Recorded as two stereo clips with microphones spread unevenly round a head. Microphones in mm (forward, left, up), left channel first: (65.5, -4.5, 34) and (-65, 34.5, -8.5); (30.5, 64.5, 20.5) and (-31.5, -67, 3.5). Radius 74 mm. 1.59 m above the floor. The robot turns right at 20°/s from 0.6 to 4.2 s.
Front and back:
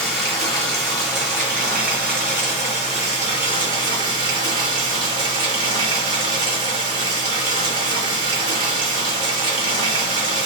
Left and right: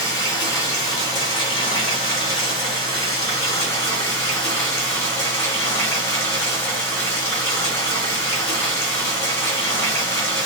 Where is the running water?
35° left, 1.6 m; by 10.4 s 105° left, 1.6 m.